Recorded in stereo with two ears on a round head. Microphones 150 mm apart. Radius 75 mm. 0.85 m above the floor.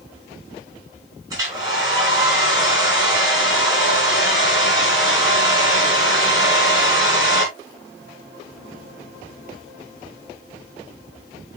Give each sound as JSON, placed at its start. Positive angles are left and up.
{"t": 1.3, "sound": "a hair dryer", "side_deg": -20, "distance_m": 5.0}